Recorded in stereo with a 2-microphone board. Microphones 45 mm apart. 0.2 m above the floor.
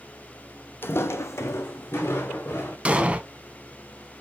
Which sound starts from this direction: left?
Footsteps, at 0.8 s.